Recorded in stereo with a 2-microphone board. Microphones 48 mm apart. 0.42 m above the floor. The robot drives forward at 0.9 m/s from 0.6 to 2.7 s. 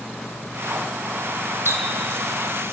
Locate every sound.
1.6 s a running tap: 70° right (ahead or behind), 1.7 m; by 2.7 s 60° right (ahead or behind), 1.8 m